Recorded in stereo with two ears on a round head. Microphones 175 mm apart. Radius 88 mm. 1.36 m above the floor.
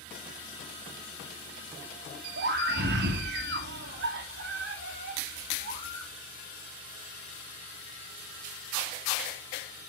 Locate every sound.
2.4 s a scream: 60° right (ahead or behind), 1.9 m